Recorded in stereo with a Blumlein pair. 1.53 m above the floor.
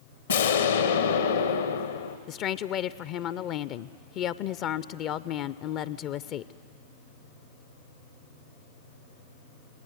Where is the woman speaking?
35° left, 0.5 m.